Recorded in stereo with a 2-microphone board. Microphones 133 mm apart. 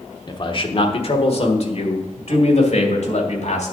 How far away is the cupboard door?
No cupboard door in this recording.